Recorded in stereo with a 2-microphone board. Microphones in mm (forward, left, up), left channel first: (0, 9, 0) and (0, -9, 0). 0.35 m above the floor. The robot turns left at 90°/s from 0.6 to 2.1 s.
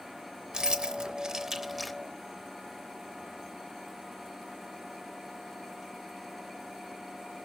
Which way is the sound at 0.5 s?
40° right (ahead or behind).